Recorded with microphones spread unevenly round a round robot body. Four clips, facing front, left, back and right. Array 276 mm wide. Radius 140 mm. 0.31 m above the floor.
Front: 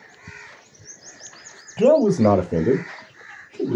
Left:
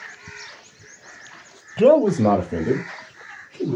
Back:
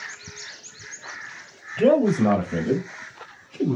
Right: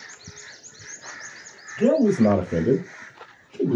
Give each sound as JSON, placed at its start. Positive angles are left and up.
{"t": 1.8, "sound": "a man speaking", "azimuth_deg": 60, "distance_m": 1.1}